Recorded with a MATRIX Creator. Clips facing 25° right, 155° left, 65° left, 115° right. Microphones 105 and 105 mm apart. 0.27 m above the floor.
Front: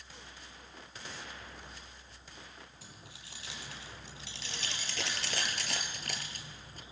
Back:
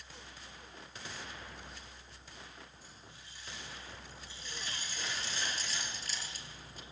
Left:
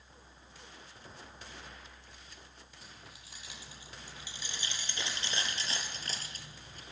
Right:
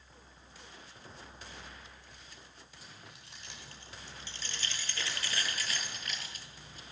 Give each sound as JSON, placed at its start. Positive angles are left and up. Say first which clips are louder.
{"t": 2.8, "sound": "keys jangling", "louder": "front 2 dB, right 1 dB", "azimuth_deg": -20, "distance_m": 4.5}